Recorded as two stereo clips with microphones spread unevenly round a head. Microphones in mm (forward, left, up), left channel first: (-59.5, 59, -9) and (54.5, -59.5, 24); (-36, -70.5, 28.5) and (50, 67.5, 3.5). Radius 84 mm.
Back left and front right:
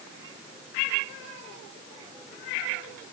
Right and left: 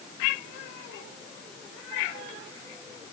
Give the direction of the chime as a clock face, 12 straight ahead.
I don't hear a chime.